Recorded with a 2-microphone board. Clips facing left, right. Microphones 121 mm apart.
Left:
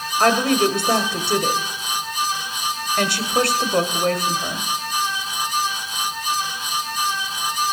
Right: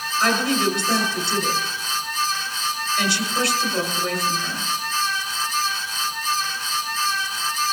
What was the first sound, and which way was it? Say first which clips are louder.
A woman speaking: left 4 dB; 55° left (ahead or behind).